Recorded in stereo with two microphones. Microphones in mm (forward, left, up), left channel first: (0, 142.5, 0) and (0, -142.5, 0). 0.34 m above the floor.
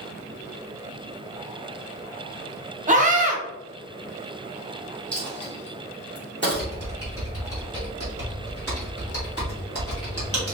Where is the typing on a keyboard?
50° left (ahead or behind), 2 m.